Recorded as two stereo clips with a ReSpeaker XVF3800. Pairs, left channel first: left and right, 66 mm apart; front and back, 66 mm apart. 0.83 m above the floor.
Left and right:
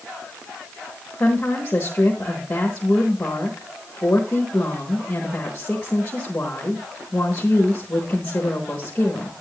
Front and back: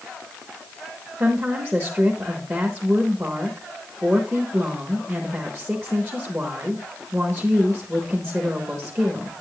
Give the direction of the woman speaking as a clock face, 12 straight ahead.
7 o'clock.